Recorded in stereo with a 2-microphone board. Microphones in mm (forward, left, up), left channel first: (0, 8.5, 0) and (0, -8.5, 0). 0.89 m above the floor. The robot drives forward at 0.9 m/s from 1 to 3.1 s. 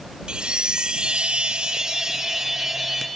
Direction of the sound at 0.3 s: 60° right (ahead or behind).